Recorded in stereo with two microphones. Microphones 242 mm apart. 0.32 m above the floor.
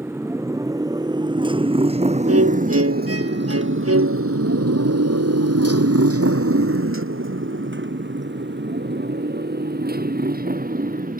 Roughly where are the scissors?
No scissors in this recording.